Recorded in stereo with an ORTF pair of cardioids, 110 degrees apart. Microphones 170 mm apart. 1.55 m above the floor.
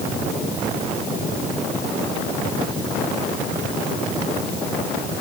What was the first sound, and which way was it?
Only background noise.